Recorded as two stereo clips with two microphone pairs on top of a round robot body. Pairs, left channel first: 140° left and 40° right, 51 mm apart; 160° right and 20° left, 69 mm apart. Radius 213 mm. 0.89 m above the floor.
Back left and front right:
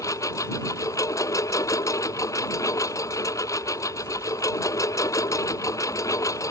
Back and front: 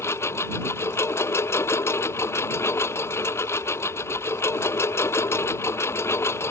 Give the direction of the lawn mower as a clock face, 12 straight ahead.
7 o'clock.